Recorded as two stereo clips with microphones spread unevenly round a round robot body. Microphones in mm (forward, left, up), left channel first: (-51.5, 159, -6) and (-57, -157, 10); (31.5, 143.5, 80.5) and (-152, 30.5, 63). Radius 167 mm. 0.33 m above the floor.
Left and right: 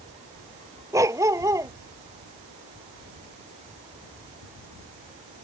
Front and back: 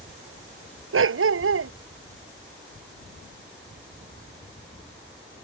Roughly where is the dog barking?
Behind.